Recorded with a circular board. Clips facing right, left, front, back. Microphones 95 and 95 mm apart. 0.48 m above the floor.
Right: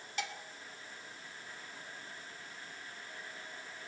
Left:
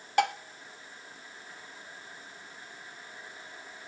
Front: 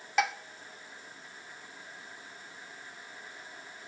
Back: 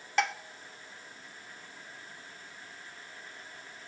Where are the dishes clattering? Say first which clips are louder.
Left 15 dB, front 1 dB; 85° left, 0.6 m.